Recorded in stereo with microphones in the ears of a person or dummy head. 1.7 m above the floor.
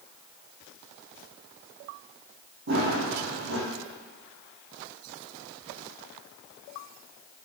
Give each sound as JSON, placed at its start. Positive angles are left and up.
{"t": 2.7, "sound": "running footsteps", "side_deg": -60, "distance_m": 3.5}